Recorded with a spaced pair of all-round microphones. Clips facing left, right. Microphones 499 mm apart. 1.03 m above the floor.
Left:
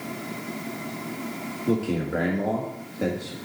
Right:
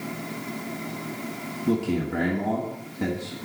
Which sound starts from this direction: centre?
A man speaking, at 1.7 s.